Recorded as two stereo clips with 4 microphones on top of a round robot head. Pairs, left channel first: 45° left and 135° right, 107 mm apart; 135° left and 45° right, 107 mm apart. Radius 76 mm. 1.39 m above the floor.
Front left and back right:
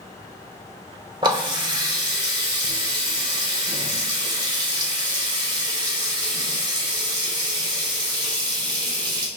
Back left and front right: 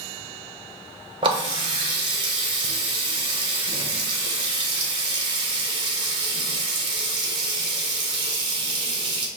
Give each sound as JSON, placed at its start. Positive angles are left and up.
{"t": 1.2, "sound": "a running tap", "azimuth_deg": -85, "distance_m": 0.6}